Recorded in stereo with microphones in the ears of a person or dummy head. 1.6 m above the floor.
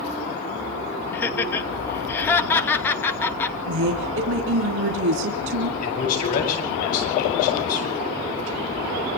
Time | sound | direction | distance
1.1 | laughter | 10° left (ahead or behind) | 2 m
3.7 | a woman speaking | 75° right (ahead or behind) | 3 m
5.8 | a man speaking | 45° left (ahead or behind) | 9.5 m